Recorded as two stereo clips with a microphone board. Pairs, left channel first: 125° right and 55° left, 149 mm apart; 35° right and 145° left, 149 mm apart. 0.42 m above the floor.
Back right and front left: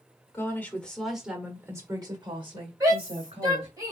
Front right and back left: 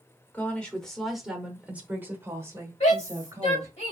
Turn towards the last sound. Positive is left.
turn(degrees=-5)